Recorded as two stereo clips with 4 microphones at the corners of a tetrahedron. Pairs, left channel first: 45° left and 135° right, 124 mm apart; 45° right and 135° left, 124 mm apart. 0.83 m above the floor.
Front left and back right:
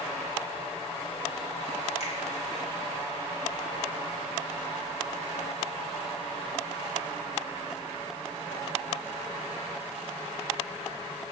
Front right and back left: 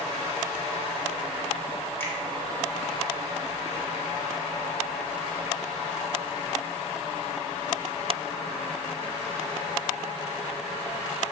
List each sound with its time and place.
2.0 s a finger snap: 25° left, 1.8 m